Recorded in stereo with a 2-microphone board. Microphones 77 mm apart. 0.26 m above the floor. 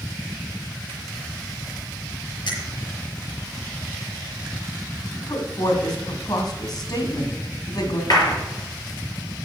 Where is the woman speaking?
55° left (ahead or behind), 2 m.